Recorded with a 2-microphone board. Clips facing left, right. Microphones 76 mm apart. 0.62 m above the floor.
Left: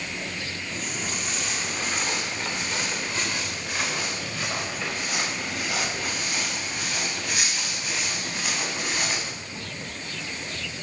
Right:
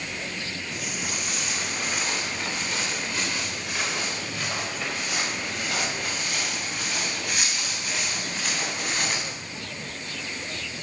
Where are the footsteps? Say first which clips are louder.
Left 1 dB; 10° right (ahead or behind), 2.5 m; by 9.3 s 5° right (ahead or behind), 8.5 m.